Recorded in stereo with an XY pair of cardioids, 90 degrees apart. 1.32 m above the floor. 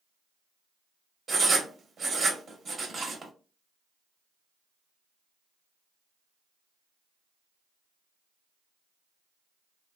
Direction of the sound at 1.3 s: 50° right.